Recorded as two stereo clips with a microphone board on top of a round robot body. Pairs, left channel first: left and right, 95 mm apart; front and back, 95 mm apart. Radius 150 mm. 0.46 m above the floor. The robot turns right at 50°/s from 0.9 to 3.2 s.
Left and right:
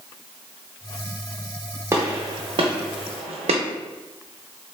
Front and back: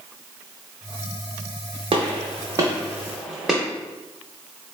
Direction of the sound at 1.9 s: 155° right.